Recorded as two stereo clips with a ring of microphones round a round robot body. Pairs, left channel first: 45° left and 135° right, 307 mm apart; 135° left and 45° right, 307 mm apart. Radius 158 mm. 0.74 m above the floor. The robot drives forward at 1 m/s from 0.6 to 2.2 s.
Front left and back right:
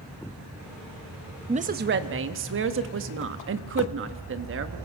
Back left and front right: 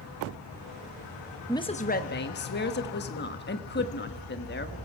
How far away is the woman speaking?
About 0.7 m.